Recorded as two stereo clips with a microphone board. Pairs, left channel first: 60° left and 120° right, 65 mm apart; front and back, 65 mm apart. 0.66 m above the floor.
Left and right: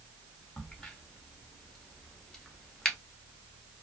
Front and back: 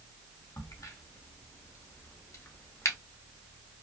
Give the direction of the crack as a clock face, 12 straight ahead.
1 o'clock.